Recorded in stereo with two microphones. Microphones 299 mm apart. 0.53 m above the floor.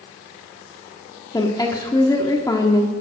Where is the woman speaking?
15° left (ahead or behind), 1.2 m.